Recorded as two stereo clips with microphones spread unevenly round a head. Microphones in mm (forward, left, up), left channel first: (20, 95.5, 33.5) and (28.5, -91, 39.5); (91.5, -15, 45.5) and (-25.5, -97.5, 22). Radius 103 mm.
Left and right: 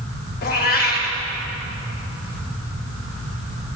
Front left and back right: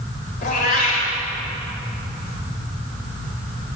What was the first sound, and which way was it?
A cat meowing, 55° left.